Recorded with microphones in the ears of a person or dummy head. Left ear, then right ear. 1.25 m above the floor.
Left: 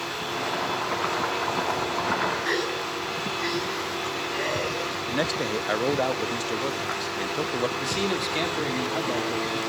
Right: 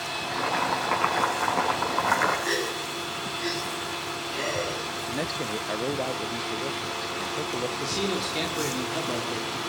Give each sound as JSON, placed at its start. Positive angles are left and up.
{"t": 0.1, "sound": "boiling", "side_deg": -35, "distance_m": 5.0}
{"t": 2.5, "sound": "a gasp", "side_deg": 20, "distance_m": 8.0}
{"t": 5.1, "sound": "a man speaking", "side_deg": 30, "distance_m": 0.6}
{"t": 7.8, "sound": "a man speaking", "side_deg": 15, "distance_m": 3.0}